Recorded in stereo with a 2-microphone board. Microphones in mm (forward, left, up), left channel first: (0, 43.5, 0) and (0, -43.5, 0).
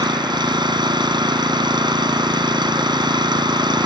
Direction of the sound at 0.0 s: 60° right (ahead or behind).